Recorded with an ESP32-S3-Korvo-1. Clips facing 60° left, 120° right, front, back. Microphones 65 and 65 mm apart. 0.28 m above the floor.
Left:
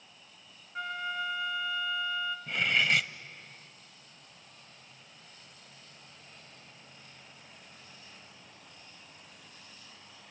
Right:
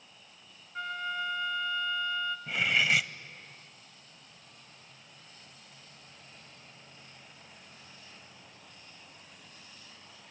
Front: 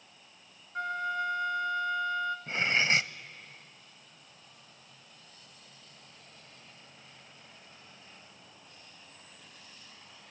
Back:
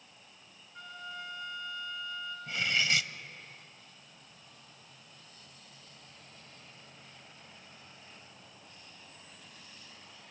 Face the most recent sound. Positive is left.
turn(degrees=-35)